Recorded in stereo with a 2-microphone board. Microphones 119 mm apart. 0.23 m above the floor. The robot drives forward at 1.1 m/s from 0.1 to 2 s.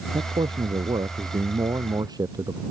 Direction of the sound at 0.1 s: 45° right (ahead or behind).